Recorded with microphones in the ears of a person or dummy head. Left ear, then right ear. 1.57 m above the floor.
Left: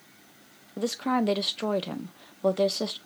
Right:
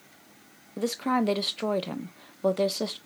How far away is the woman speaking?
About 0.5 m.